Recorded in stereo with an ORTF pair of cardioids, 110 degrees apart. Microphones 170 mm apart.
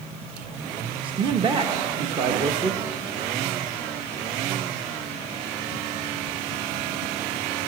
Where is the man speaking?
30° right, 0.8 m.